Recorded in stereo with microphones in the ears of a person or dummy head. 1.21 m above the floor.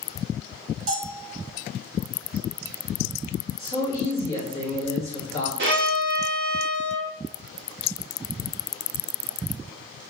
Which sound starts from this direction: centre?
A man speaking, at 3.6 s.